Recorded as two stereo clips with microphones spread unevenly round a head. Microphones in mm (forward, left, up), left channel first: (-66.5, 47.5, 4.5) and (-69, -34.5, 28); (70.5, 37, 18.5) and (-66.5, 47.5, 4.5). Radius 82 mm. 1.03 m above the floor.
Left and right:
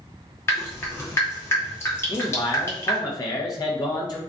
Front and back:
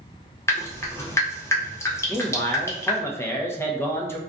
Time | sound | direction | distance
0.5 | dripping | 65° left | 0.9 m
2.1 | a man speaking | 70° left | 0.8 m